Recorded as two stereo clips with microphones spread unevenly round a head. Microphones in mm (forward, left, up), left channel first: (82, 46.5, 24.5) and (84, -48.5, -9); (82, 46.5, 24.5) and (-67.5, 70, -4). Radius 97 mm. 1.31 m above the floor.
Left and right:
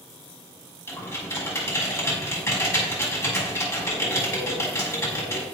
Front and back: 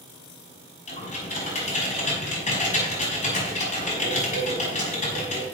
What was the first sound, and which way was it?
Typing on a keyboard, 30° left.